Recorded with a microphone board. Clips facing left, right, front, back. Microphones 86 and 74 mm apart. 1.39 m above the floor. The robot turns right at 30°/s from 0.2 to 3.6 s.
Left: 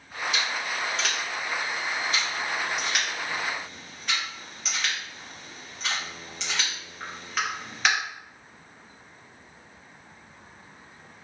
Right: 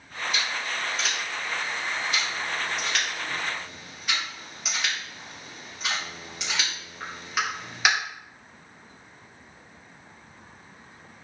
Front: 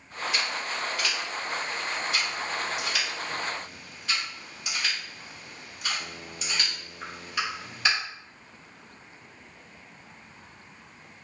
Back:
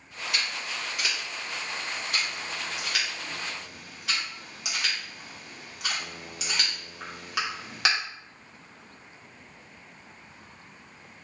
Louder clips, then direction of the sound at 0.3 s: Even, front 1 dB; 90° left.